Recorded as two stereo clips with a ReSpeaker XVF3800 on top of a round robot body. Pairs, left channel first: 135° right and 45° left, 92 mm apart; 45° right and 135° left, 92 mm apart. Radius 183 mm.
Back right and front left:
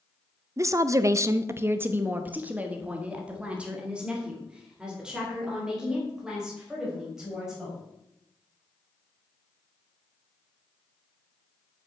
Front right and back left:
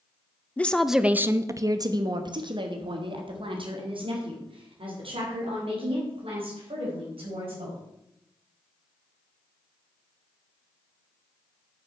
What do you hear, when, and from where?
0.6 s a woman speaking: 15° left, 0.8 m; by 7.8 s 130° left, 5.5 m